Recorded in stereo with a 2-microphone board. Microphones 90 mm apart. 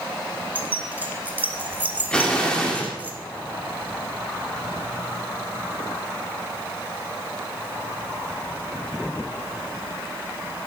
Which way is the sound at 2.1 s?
10° left (ahead or behind).